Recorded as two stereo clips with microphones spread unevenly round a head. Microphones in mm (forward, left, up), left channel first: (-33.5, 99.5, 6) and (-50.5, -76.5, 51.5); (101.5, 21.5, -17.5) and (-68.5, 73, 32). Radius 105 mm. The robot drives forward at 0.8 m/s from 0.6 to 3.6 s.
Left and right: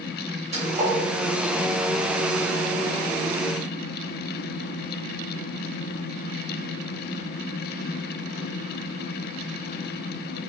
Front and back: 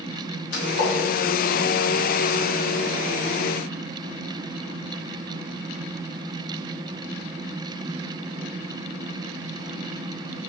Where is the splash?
40° right, 3 m; by 1.0 s 45° right, 2.5 m.